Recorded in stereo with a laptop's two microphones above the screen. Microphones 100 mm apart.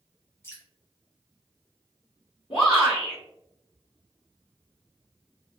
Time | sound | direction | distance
0.4 | dripping | 25° left (ahead or behind) | 1.0 m
2.5 | a shout | 65° left (ahead or behind) | 1.4 m